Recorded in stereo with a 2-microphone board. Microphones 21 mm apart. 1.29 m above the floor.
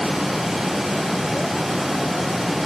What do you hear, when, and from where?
Only background noise.